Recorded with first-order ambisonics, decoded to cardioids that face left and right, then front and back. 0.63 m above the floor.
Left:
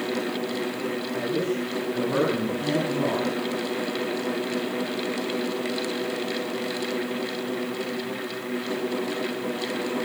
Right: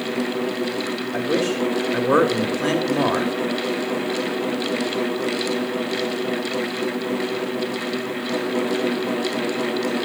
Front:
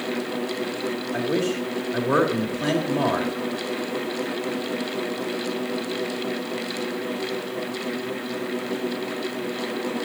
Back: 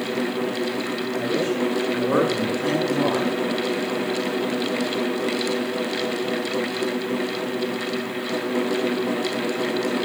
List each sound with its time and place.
1.1 s a man speaking: 75° right, 1.9 m